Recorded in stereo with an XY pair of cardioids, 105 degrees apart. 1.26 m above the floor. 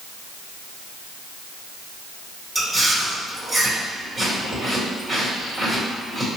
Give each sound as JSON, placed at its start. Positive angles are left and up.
{"t": 2.5, "sound": "chewing", "azimuth_deg": -15, "distance_m": 2.0}